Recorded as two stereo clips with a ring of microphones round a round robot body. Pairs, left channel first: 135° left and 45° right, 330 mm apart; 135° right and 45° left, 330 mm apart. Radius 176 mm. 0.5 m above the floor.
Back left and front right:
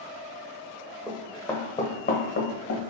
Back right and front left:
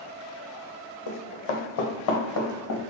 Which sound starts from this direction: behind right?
Running footsteps, at 1.1 s.